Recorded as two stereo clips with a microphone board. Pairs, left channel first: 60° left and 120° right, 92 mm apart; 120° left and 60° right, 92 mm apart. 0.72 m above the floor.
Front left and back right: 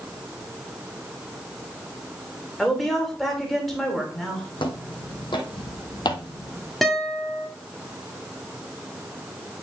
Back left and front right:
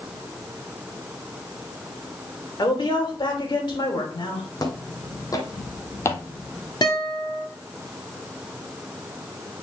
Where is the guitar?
150° left, 1.8 m.